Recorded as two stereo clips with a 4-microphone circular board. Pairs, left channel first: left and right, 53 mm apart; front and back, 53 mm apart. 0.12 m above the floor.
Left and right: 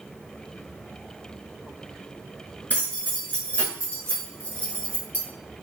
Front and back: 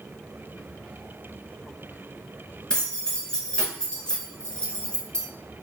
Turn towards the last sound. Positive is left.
turn(degrees=60)